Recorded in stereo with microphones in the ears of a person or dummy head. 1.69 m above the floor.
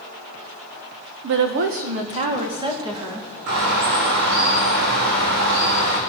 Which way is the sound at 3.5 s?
60° right (ahead or behind).